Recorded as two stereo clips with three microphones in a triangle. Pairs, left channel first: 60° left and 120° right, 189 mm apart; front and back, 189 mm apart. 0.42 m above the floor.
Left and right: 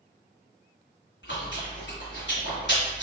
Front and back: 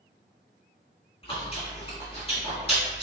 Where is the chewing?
60° left, 1.9 m.